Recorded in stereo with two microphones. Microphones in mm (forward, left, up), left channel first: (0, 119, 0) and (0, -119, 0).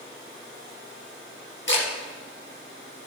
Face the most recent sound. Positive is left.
turn(degrees=50)  # may be behind; listen again after turning